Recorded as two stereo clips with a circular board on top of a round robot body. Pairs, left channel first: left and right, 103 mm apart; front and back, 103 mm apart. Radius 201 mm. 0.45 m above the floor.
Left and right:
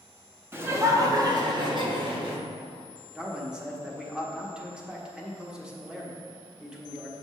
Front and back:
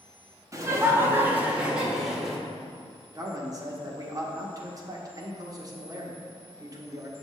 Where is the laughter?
145° right, 1.3 m; by 2.4 s 90° right, 1.7 m.